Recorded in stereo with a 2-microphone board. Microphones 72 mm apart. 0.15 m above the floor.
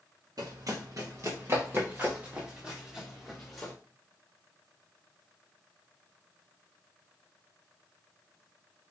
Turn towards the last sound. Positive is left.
turn(degrees=5)  # may be behind; listen again after turning